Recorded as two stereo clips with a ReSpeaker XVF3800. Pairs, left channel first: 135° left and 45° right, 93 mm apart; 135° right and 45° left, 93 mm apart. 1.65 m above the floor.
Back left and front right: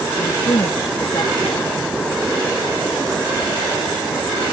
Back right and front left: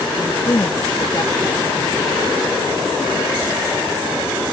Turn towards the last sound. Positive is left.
turn(degrees=175)